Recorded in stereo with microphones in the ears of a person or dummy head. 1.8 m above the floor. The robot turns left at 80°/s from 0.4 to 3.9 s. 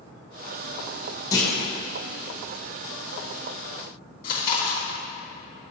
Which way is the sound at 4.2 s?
45° left (ahead or behind).